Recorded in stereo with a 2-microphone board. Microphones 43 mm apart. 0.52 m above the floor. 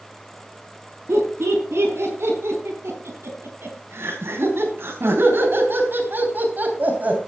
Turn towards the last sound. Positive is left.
turn(degrees=-40)  # may be behind; listen again after turning